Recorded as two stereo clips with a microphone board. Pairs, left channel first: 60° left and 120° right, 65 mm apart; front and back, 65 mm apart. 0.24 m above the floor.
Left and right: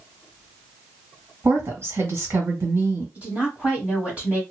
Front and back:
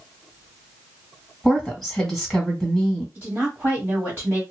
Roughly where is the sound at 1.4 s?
Right.